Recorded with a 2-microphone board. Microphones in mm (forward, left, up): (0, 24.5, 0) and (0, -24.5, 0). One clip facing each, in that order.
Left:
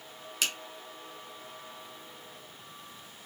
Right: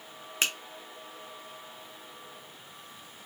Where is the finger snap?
35° right (ahead or behind), 0.6 m.